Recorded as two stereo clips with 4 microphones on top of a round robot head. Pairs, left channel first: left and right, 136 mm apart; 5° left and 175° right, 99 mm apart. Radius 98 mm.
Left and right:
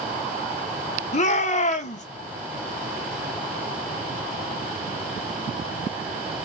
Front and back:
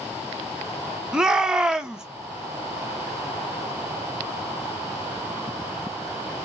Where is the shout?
100° left, 0.9 m.